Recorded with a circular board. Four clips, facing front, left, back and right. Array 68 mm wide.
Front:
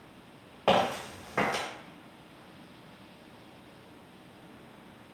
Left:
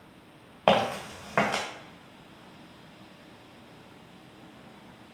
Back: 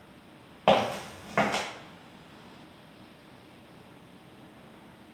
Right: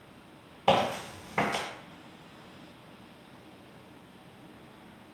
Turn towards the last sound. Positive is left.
turn(degrees=105)